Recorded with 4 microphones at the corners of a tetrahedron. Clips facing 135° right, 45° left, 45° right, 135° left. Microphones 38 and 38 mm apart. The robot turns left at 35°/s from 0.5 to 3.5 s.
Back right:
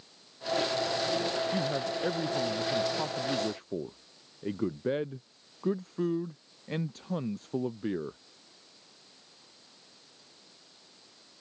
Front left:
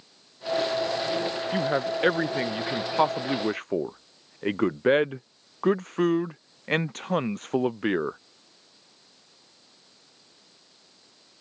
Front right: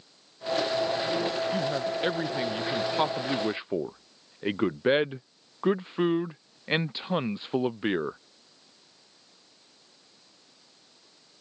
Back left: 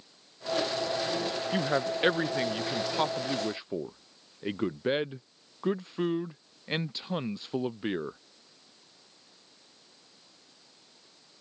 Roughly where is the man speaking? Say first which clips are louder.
Front left 5 dB, even; left.